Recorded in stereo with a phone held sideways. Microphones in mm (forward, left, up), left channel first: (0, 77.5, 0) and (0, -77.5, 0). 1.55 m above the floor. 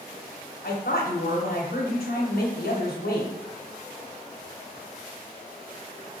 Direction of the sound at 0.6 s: 80° left.